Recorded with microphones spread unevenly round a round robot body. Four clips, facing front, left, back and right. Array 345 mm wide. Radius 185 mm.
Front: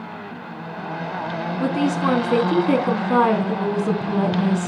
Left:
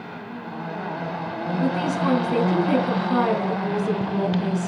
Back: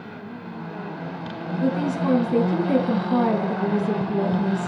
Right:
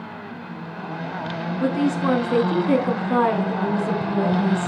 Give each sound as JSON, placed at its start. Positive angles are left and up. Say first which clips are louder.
{"t": 1.6, "sound": "a woman speaking", "louder": "right 3 dB, front 2 dB", "azimuth_deg": -10, "distance_m": 3.0}